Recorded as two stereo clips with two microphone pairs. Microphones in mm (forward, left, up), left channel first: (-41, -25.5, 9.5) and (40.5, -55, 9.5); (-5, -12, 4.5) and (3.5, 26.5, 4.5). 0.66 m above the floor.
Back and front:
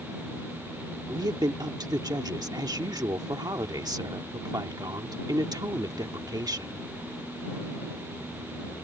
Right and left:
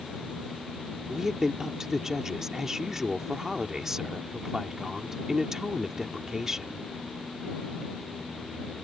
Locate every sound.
1.1 s a woman speaking: straight ahead